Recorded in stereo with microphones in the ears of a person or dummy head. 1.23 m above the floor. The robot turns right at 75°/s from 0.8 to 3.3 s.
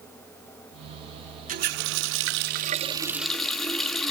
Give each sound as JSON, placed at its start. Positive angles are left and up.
{"t": 1.5, "sound": "a running tap", "azimuth_deg": -130, "distance_m": 1.1}